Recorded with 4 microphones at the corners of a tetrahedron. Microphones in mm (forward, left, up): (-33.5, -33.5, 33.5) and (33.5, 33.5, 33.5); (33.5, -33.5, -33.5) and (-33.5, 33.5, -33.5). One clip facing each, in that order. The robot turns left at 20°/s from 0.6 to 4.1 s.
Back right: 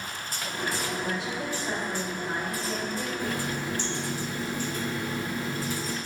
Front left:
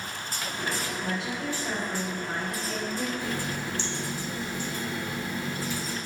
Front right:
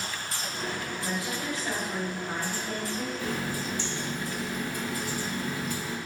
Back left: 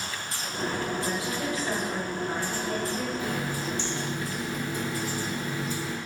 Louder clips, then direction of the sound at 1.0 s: Even, back left 3 dB; 165° right.